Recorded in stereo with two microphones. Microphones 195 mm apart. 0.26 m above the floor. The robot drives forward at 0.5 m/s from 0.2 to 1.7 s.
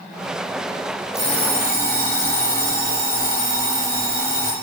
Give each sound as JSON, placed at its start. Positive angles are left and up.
{"t": 1.1, "sound": "an alarm clock", "side_deg": -65, "distance_m": 1.9}